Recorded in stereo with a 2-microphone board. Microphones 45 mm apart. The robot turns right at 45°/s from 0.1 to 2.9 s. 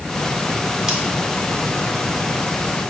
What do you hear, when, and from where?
0.9 s scissors: 25° right (ahead or behind), 1.5 m; by 1.0 s 30° right (ahead or behind), 1.5 m